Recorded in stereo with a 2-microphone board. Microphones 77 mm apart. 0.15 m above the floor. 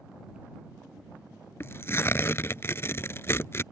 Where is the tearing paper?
30° left (ahead or behind).